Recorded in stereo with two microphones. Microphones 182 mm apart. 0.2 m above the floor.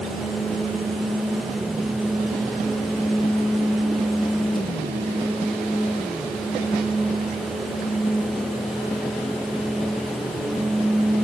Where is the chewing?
No chewing in this recording.